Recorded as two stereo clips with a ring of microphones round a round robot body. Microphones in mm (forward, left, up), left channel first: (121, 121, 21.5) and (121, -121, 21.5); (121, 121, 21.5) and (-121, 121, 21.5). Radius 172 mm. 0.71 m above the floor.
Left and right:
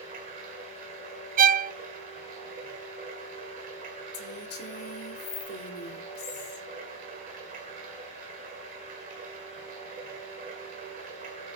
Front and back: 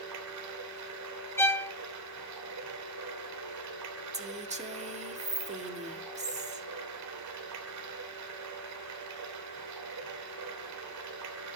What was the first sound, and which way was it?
Running water, 155° right.